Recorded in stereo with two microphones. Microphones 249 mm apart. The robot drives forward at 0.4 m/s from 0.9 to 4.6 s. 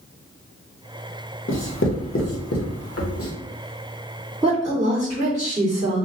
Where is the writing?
45° left (ahead or behind), 0.9 m; by 3.3 s 55° left (ahead or behind), 0.8 m.